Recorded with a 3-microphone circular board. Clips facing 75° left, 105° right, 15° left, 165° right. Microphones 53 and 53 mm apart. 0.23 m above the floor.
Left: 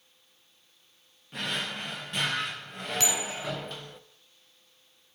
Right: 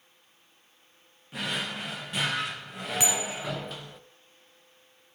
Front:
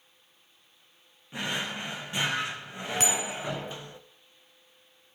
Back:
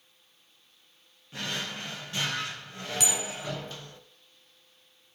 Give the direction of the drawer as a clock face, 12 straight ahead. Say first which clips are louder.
Right 1 dB, front 3 dB; 1 o'clock.